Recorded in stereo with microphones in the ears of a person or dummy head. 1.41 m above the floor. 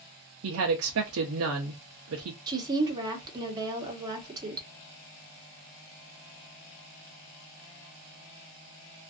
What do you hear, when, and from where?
0.4 s a woman speaking: 65° right (ahead or behind), 0.6 m
2.5 s a woman speaking: 25° right (ahead or behind), 1.0 m